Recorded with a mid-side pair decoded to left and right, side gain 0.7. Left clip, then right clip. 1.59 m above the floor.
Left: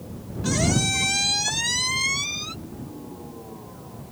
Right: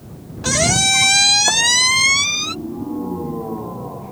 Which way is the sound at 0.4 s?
45° right.